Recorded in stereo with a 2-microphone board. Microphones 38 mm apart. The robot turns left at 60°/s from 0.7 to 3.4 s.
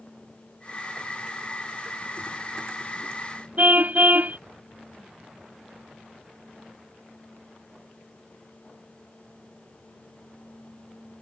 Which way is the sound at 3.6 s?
50° right (ahead or behind).